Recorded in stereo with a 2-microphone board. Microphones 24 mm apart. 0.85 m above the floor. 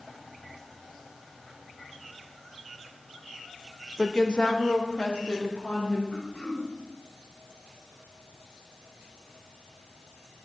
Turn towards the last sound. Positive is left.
turn(degrees=70)  # may be behind; listen again after turning